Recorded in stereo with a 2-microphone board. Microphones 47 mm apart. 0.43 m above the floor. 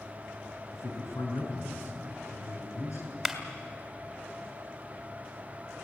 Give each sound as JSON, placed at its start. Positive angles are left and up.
{"t": 0.7, "sound": "a man speaking", "side_deg": 70, "distance_m": 5.5}
{"t": 3.2, "sound": "a clap", "side_deg": -5, "distance_m": 1.9}